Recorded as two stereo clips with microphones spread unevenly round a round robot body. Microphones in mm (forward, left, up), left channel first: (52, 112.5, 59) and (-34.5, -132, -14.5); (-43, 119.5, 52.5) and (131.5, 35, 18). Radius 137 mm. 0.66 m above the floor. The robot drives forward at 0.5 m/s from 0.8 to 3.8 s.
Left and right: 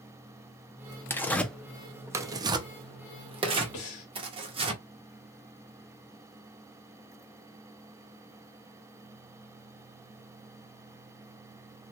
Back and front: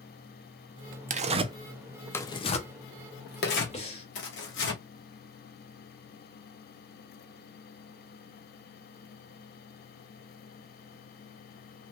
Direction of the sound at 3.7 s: 95° left.